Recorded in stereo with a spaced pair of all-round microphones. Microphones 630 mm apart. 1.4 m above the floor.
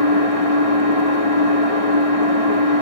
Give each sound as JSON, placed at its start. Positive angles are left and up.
{"t": 0.0, "sound": "an engine running", "side_deg": 60, "distance_m": 2.0}